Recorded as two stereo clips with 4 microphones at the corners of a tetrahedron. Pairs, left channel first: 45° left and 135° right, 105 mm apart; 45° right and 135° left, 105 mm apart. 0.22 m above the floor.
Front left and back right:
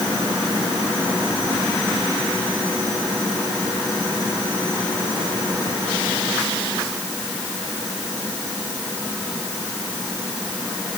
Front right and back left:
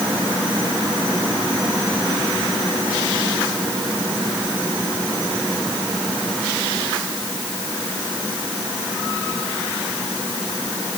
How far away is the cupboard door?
No cupboard door in this recording.